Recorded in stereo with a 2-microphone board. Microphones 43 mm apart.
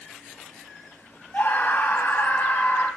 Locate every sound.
1.3 s a scream: 40° left (ahead or behind), 1.4 m